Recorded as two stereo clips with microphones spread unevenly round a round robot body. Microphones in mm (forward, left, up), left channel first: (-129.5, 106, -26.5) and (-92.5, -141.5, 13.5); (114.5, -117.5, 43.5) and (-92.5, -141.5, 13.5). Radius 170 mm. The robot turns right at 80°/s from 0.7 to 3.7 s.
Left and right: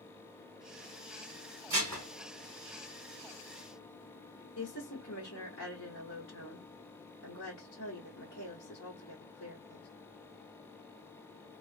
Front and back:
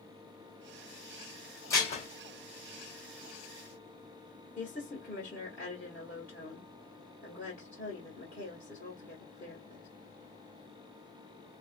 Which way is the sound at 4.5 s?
95° left.